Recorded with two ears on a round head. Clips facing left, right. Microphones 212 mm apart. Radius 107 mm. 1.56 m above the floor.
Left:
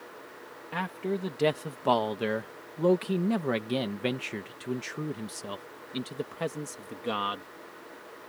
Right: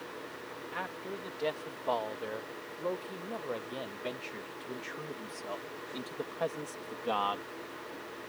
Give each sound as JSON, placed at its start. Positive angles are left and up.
{"t": 0.7, "sound": "a man speaking", "side_deg": 65}